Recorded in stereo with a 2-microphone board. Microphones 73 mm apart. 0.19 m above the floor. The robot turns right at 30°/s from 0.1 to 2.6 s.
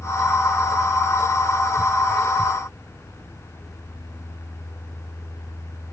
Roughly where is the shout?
No shout in this recording.